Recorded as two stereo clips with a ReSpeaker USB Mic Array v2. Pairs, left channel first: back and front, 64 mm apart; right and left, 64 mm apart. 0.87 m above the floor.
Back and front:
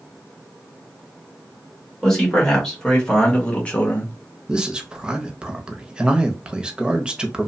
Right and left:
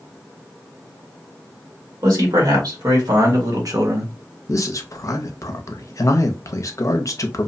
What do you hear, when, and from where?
2.0 s a man speaking: 95° left, 1.7 m; by 4.1 s 120° left, 0.8 m
4.5 s a man speaking: 75° right, 0.5 m